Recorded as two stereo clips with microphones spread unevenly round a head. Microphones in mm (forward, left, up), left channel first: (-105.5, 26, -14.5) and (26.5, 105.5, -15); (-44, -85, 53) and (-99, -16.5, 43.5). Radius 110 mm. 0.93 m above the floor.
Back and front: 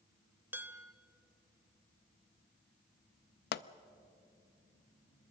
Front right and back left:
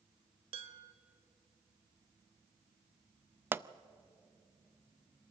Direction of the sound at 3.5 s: 160° right.